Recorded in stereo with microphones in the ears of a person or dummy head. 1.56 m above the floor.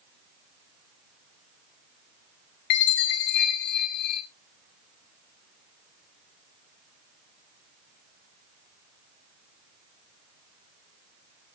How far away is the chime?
About 2 m.